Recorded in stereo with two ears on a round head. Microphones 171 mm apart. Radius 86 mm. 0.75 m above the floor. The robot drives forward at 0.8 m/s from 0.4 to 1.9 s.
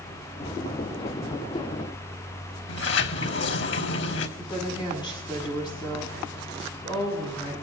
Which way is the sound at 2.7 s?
65° left (ahead or behind).